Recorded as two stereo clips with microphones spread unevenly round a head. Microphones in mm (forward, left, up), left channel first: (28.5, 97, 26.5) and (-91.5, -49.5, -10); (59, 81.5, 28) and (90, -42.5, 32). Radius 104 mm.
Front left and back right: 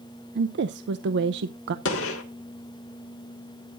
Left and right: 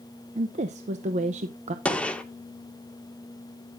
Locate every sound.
0.3 s a woman speaking: 115° right, 0.6 m
1.9 s a gunshot: 25° left, 2 m